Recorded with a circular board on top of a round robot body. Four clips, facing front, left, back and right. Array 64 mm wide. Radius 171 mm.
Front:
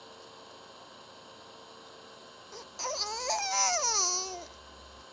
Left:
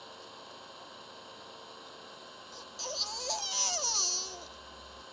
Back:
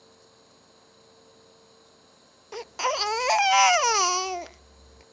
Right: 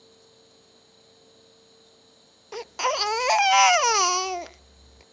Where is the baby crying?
125° right.